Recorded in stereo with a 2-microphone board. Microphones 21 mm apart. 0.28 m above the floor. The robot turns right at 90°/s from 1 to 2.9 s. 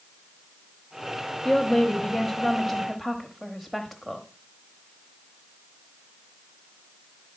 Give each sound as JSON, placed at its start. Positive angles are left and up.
{"t": 1.4, "sound": "a woman speaking", "side_deg": 20, "distance_m": 1.1}